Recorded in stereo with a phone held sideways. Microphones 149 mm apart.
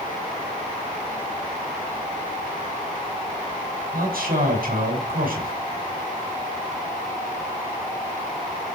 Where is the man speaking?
75° right (ahead or behind), 6.5 m.